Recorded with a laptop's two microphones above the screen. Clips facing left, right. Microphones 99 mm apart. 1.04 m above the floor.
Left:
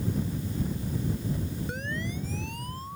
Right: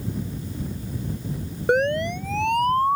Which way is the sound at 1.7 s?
70° right (ahead or behind).